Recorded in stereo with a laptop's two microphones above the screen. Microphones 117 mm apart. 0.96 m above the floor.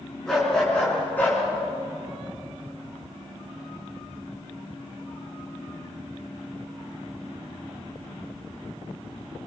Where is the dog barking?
5° left (ahead or behind), 5.5 m; by 1.4 s 20° left (ahead or behind), 5 m.